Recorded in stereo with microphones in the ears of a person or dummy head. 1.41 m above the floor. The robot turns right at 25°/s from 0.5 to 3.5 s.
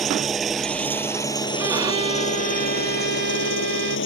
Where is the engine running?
5° left; by 4.1 s 80° left.